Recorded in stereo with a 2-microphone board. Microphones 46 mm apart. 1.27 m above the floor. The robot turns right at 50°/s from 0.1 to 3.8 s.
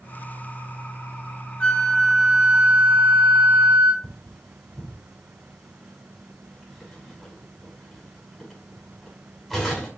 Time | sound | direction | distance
1.6 | a flute | 155° left | 1.5 m
4.0 | cutlery clinking | centre (ahead or behind) | 5 m